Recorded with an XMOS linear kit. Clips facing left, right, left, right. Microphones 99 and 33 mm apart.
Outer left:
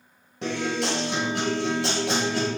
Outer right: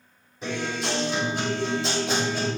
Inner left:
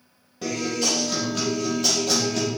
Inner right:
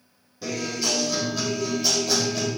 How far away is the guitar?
About 4.5 m.